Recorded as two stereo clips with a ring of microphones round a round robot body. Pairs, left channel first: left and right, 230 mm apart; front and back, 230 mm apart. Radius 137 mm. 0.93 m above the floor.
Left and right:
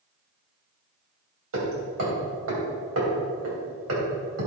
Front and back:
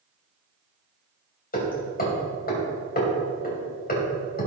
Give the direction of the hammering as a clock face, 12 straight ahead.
2 o'clock.